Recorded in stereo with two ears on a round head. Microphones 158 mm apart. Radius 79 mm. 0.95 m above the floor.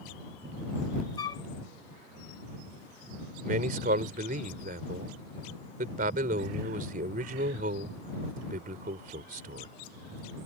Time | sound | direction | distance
1.2 | a flute | 25° left (ahead or behind) | ?
3.4 | a man speaking | 50° right (ahead or behind) | ?